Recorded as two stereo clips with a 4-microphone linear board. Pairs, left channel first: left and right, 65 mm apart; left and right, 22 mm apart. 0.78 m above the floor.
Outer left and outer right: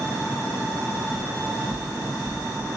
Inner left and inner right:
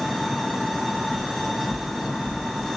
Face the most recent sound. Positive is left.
turn(degrees=-10)  # may be behind; listen again after turning